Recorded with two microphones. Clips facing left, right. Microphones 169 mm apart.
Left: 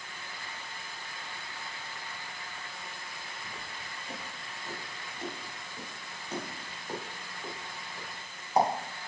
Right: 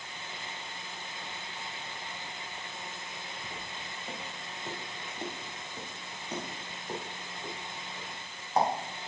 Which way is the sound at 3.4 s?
60° right (ahead or behind).